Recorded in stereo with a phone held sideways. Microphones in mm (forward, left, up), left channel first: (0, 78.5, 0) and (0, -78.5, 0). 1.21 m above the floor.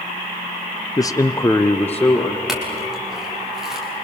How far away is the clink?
About 5.5 m.